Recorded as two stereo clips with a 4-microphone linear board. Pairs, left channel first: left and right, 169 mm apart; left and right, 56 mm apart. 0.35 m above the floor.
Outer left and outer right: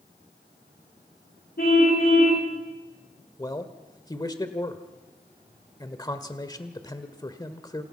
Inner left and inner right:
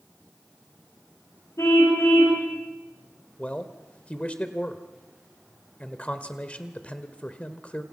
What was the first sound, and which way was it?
A car horn, 60° left (ahead or behind).